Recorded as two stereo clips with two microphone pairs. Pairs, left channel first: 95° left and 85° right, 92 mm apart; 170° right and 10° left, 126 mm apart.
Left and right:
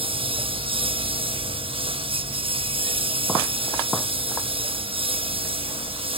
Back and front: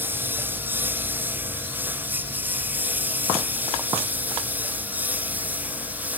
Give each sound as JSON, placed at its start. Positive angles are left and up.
{"t": 0.0, "sound": "a lawn mower", "azimuth_deg": -65}